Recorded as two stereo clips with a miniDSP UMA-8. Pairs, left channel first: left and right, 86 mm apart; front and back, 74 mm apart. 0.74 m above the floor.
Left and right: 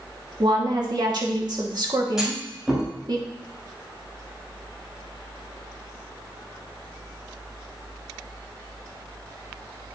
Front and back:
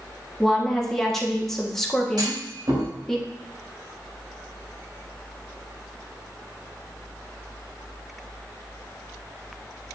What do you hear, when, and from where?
0.4 s a woman speaking: 85° right, 1.3 m
2.2 s a clunk: 175° right, 3 m